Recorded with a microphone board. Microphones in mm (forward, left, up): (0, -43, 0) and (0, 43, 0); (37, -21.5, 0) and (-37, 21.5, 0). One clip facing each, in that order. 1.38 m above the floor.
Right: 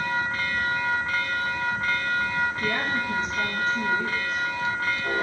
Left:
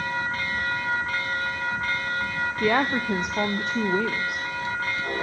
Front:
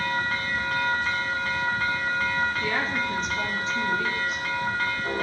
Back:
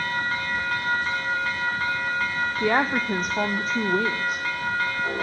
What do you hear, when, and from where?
2.6 s a woman speaking: 110° left, 0.8 m